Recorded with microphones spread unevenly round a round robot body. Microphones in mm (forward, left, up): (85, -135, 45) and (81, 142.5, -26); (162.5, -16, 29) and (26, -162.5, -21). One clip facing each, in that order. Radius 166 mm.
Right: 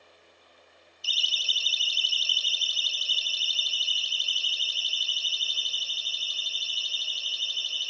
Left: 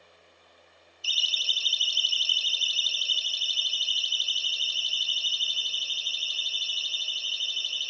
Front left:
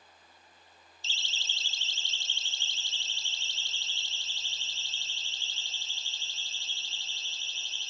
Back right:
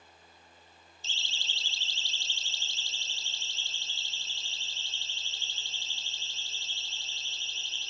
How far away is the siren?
About 2.5 m.